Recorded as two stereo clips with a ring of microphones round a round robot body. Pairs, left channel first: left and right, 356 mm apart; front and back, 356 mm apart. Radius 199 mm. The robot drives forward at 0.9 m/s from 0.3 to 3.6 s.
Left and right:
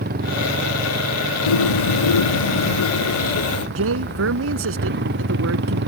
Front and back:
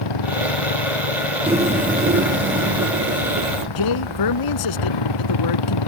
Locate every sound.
0.0 s a motorcycle: 25° right
1.5 s a bird: 105° left; by 3.6 s 135° left
3.8 s a man speaking: 35° right